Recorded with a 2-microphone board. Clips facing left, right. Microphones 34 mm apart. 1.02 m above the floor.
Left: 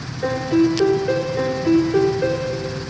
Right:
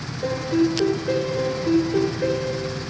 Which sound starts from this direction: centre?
A piano, at 0.2 s.